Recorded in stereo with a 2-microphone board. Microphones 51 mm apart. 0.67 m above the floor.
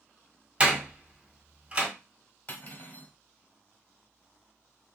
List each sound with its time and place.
0.6 s a door slam: 25° right (ahead or behind), 1.6 m
2.5 s cutlery clinking: 45° left (ahead or behind), 1.2 m